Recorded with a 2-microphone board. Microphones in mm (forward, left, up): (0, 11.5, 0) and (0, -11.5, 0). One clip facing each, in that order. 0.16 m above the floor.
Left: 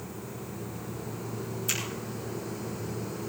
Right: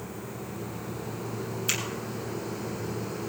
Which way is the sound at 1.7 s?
25° right (ahead or behind).